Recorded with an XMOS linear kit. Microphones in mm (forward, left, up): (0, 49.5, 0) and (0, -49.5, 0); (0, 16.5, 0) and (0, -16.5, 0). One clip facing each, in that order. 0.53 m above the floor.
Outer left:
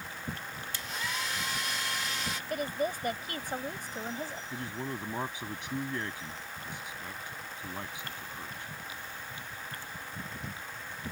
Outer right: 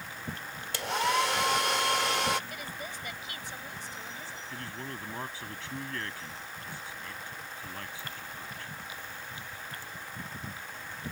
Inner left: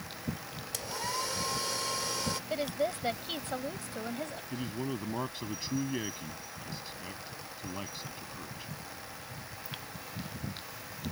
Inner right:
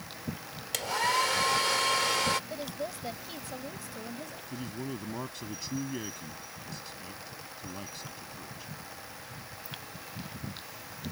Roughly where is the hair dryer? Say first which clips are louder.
Outer right 11 dB, inner right 8 dB; right.